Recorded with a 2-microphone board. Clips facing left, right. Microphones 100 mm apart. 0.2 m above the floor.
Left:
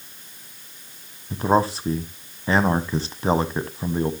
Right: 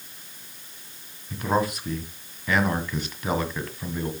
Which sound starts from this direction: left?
A man speaking, at 1.3 s.